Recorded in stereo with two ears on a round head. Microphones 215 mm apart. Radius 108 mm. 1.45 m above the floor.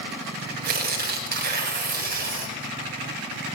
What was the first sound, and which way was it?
Tearing paper, 40° right (ahead or behind).